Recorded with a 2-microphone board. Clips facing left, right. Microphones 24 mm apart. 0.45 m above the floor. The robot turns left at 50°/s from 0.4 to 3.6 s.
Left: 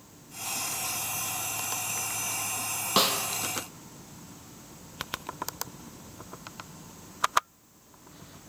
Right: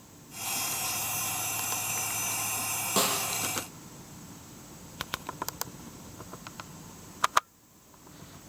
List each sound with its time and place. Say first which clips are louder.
3.0 s a snare drum: left 4 dB; 45° left (ahead or behind), 3 m; by 3.2 s 60° left (ahead or behind), 3 m